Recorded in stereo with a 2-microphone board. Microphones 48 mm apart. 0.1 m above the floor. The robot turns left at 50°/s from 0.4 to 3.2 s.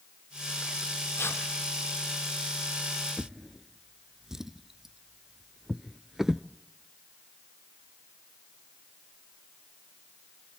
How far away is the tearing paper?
About 3 m.